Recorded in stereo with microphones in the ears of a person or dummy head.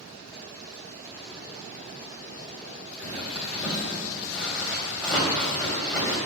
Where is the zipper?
10° left (ahead or behind), 3 m.